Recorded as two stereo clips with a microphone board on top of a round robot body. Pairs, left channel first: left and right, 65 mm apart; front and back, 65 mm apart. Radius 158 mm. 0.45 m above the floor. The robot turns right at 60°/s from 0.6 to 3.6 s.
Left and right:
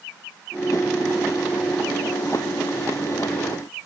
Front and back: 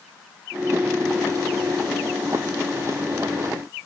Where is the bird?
No bird in this recording.